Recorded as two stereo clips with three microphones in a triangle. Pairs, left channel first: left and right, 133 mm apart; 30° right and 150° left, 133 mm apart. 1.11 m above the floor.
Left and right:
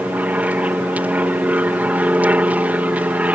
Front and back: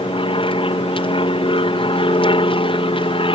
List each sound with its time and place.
0.0 s an aircraft: 15° right